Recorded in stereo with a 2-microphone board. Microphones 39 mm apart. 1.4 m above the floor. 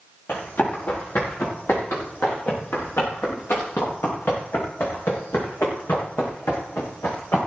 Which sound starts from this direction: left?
Running footsteps, at 0.3 s.